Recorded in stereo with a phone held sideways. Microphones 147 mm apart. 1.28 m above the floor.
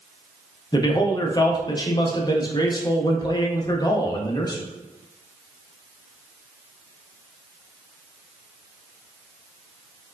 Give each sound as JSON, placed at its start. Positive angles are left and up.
{"t": 0.7, "sound": "a man speaking", "side_deg": 25, "distance_m": 0.5}